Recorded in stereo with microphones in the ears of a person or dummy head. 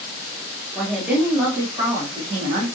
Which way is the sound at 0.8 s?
Centre (ahead or behind).